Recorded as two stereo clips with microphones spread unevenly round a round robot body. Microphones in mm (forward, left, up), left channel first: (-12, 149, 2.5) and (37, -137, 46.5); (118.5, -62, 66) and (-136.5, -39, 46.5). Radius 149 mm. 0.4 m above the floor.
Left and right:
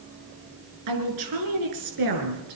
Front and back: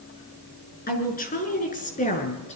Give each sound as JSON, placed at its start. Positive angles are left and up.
{"t": 0.9, "sound": "a woman speaking", "azimuth_deg": -60, "distance_m": 5.5}